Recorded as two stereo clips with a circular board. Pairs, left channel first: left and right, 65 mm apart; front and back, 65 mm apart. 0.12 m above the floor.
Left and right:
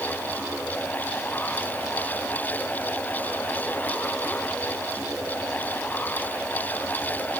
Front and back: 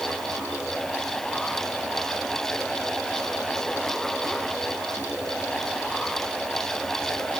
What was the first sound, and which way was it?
Only background noise.